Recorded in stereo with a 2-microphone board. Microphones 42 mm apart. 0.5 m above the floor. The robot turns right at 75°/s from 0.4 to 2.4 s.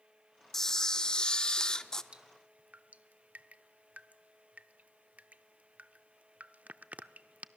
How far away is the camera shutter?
About 0.5 m.